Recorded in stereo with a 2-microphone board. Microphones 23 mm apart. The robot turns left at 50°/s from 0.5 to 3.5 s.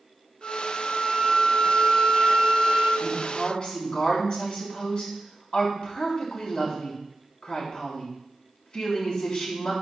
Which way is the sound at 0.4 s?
25° right.